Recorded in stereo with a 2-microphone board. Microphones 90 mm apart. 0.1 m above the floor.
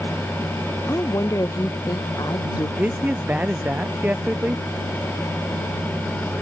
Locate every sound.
0.9 s a woman speaking: 30° left (ahead or behind); by 2.7 s 40° left (ahead or behind)
2.8 s a man speaking: 15° right (ahead or behind)